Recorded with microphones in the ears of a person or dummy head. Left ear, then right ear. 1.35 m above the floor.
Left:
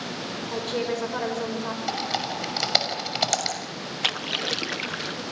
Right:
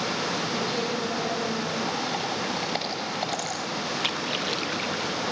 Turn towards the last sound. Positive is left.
turn(degrees=15)  # may be behind; listen again after turning